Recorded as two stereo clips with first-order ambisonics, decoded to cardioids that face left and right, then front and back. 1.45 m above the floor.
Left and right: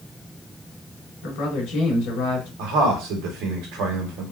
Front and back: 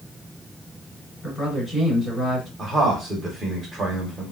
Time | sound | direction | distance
1.2 | a man speaking | 90° left | 1.9 m
2.6 | a man speaking | 110° right | 1.2 m